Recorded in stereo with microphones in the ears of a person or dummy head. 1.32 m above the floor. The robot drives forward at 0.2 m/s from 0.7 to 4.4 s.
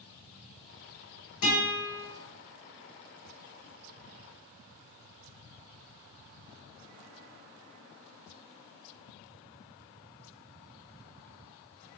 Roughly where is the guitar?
Left.